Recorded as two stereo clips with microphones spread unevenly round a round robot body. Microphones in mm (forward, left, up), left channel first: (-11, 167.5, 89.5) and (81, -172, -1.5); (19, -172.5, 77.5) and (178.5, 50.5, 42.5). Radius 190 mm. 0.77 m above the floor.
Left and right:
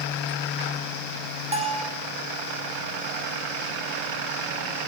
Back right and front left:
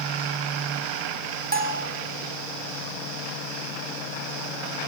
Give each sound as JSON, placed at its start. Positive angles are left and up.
{"t": 1.5, "sound": "a bell", "azimuth_deg": -5, "distance_m": 3.5}